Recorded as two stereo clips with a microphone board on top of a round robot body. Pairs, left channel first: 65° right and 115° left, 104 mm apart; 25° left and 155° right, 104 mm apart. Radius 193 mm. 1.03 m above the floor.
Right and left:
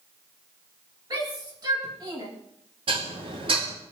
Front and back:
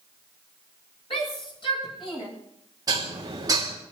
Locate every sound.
1.1 s a shout: 60° left, 8 m; by 2.3 s 65° left, 8 m
2.9 s dishes clattering: 145° left, 2 m